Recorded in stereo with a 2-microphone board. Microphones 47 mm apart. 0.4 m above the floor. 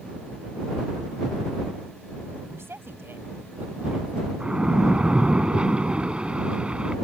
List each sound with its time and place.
2.5 s a woman speaking: 65° right (ahead or behind); by 4.3 s 20° right (ahead or behind)
4.4 s a splash: 20° right (ahead or behind)